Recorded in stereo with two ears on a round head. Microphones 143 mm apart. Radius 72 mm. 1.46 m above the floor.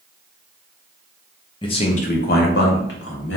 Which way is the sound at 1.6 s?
30° left (ahead or behind).